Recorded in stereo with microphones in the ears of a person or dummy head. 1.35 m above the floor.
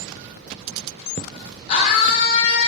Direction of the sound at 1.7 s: 35° left (ahead or behind).